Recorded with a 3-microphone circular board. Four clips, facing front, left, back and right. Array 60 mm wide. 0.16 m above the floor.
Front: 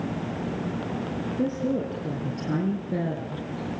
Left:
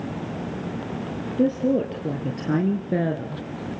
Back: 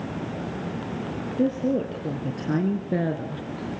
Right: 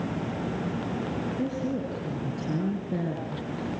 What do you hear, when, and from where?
1.4 s a woman speaking: 110° left, 4 m; by 3.4 s 130° left, 2 m